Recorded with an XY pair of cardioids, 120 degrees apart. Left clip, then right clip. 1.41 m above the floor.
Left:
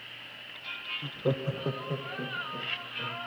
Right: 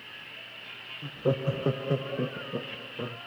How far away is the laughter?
About 0.6 m.